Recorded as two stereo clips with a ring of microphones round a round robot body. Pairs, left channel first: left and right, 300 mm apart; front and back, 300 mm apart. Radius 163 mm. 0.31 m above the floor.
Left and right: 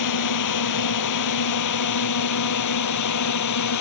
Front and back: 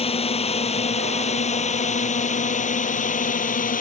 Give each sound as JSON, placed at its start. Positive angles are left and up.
{"t": 0.0, "sound": "a drone", "azimuth_deg": 70}